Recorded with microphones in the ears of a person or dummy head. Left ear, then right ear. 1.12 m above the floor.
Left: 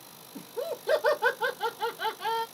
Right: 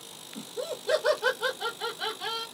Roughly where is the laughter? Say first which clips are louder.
Left 1 dB; centre.